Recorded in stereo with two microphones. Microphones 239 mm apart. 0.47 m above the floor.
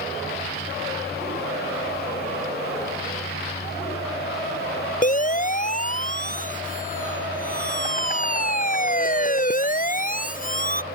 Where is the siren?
35° left (ahead or behind).